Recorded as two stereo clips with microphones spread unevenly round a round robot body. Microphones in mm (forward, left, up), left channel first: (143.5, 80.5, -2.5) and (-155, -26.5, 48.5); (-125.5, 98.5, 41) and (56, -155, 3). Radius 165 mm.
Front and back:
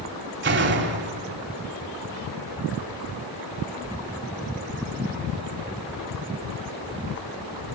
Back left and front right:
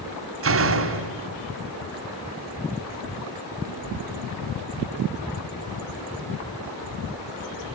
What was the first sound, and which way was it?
A door slam, 100° right.